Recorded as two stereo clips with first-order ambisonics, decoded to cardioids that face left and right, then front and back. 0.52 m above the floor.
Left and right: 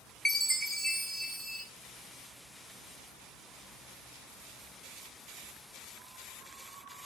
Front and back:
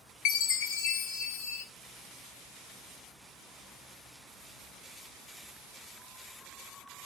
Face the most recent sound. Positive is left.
turn(degrees=5)